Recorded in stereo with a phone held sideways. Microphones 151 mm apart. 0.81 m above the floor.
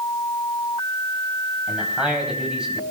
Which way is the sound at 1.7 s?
5° right (ahead or behind).